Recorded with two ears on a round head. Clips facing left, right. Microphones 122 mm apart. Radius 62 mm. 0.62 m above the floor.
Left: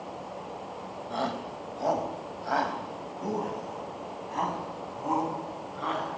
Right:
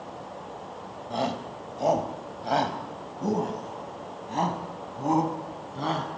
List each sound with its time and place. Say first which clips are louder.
1.1 s a shout: right 3 dB; 20° right (ahead or behind), 2.5 m; by 6.1 s 40° right (ahead or behind), 5 m